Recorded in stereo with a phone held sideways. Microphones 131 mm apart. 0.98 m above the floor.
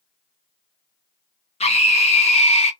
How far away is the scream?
About 0.8 m.